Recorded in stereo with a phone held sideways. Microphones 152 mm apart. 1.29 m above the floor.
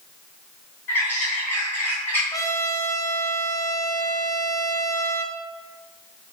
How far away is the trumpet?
About 0.8 m.